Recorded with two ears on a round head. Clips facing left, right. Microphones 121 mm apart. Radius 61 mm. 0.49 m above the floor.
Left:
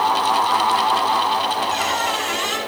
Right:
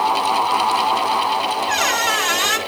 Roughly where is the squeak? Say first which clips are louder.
Right 1 dB; right.